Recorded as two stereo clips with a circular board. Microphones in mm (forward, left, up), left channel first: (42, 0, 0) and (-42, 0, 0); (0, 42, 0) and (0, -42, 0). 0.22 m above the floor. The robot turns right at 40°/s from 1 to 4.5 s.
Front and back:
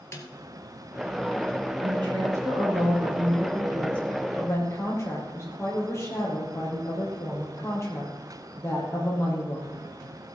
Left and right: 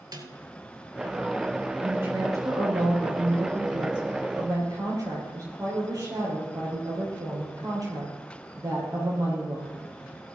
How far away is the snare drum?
About 2 m.